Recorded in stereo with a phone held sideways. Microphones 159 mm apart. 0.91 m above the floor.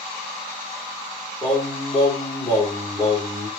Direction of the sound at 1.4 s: 30° left (ahead or behind).